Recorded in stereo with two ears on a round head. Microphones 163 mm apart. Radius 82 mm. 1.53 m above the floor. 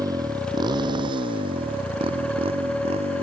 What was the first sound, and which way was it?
A motorcycle, 20° right (ahead or behind).